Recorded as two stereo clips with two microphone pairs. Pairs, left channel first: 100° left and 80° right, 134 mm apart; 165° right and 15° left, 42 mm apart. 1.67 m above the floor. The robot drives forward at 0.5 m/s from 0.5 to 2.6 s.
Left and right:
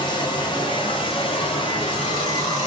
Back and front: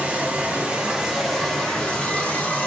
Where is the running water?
70° left, 0.9 m; by 2.7 s 150° left, 1.2 m.